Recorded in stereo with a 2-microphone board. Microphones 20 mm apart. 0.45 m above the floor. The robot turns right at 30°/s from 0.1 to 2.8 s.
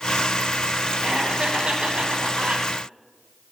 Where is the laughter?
125° right, 3.5 m; by 2.7 s 80° right, 3.5 m.